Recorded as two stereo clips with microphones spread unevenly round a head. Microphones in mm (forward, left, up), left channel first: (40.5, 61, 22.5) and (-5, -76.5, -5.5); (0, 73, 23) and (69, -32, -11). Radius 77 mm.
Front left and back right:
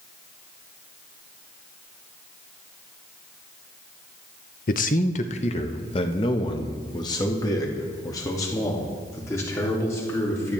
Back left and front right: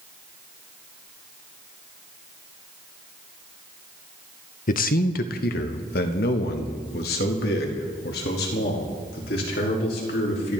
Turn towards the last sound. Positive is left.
turn(degrees=150)